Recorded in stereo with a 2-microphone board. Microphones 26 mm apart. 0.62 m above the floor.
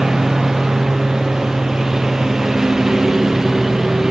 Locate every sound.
0.0 s a lawn mower: 20° right (ahead or behind)